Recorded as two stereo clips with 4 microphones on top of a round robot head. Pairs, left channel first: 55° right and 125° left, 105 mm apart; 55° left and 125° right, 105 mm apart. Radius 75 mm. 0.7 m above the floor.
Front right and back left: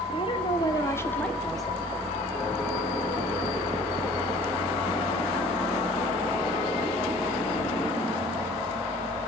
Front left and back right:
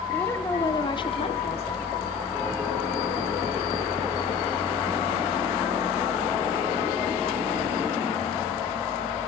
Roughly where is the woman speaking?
Ahead right.